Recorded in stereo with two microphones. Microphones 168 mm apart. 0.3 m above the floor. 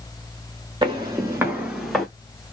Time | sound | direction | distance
0.8 | footsteps | 30° right (ahead or behind) | 1.3 m